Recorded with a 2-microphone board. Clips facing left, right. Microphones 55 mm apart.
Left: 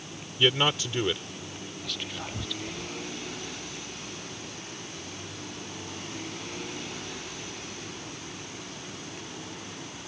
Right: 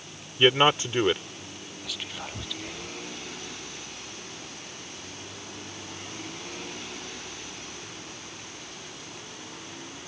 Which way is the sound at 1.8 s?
5° right (ahead or behind).